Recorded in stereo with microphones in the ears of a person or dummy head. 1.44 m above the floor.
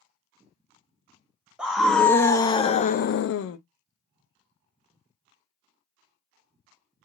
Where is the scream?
5° right (ahead or behind), 0.9 m; by 3.6 s 80° left, 0.6 m.